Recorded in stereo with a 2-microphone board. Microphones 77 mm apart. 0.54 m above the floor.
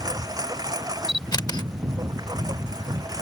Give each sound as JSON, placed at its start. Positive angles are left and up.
{"t": 0.0, "sound": "a lawn mower", "side_deg": -55}
{"t": 1.1, "sound": "a camera shutter", "side_deg": 65}